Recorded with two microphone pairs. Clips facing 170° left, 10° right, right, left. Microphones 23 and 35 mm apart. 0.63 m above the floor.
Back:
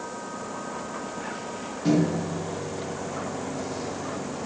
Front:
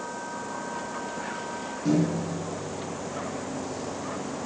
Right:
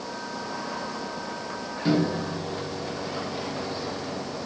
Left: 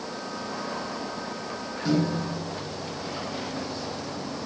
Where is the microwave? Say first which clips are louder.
Back 2 dB, right 1 dB; 135° right, 1.1 m.